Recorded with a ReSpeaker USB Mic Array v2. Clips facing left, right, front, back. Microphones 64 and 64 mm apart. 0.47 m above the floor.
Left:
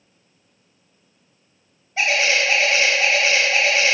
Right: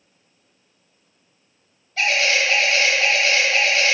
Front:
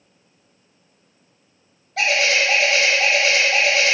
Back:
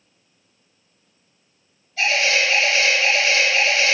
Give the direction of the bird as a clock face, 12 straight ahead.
11 o'clock.